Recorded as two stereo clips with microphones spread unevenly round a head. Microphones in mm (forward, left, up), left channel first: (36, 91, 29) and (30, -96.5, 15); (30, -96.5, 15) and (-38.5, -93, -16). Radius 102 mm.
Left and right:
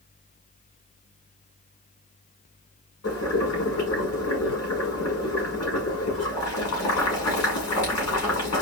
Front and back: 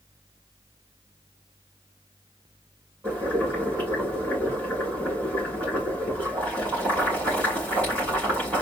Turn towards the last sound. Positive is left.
turn(degrees=100)